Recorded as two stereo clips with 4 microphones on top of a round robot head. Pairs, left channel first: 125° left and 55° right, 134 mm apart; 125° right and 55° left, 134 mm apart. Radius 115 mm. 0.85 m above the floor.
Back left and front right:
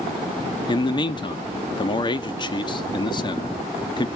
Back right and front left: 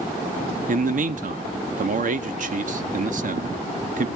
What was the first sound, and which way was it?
A man speaking, 70° left.